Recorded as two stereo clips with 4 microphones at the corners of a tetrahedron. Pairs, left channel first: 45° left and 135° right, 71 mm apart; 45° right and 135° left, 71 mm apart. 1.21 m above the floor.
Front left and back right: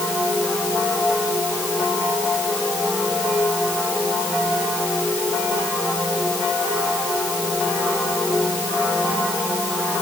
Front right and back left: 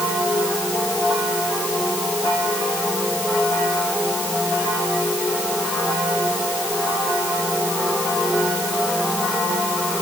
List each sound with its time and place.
Only background noise.